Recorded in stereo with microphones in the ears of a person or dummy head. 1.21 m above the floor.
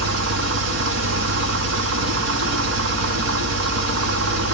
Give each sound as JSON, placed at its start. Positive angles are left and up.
{"t": 0.0, "sound": "an engine running", "side_deg": -65, "distance_m": 1.0}